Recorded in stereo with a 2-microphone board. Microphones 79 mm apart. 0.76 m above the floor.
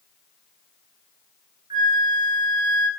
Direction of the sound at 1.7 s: 90° right.